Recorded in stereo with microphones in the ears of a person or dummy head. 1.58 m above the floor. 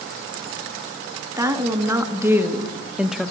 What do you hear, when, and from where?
1.4 s a woman speaking: 15° right (ahead or behind), 2.5 m; by 3.3 s centre (ahead or behind), 1.2 m